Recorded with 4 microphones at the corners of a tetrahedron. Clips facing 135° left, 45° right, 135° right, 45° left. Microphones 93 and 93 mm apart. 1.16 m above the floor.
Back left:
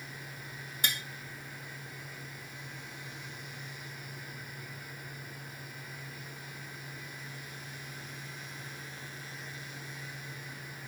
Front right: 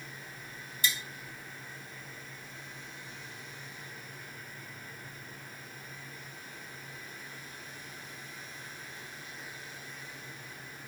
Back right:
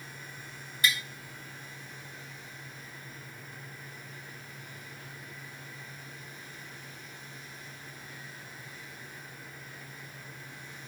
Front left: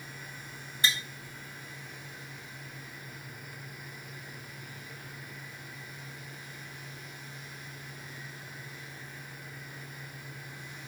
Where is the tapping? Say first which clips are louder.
Front right 2 dB, back right 1 dB; 105° left, 0.9 m.